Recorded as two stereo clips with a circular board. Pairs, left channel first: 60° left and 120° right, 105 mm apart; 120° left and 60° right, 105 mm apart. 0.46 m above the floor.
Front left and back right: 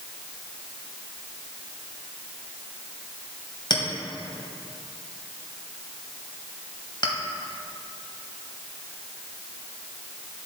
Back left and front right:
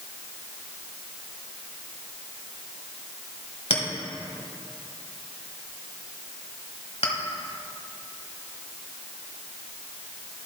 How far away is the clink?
About 1.4 m.